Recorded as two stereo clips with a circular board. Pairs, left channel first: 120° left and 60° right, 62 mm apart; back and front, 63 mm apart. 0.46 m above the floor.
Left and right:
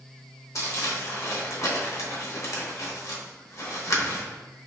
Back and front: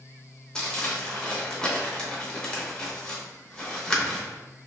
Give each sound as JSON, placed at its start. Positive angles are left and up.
{"t": 0.6, "sound": "crumpling", "azimuth_deg": 105, "distance_m": 0.8}